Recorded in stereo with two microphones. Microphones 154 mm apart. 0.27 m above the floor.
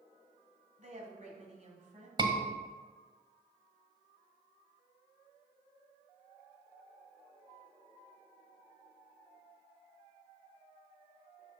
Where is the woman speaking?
50° right (ahead or behind), 1.9 m.